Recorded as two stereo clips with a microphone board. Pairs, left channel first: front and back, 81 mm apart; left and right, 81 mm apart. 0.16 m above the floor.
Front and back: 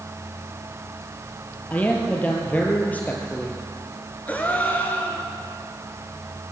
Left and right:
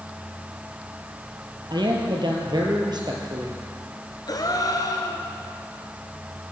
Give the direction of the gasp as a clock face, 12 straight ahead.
10 o'clock.